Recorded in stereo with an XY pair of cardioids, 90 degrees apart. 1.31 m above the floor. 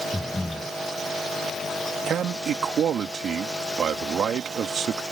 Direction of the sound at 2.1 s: 65° right.